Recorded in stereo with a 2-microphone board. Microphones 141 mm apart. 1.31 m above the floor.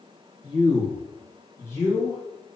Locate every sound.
0.4 s a man speaking: 35° left (ahead or behind), 0.9 m; by 2.2 s 20° left (ahead or behind), 1.8 m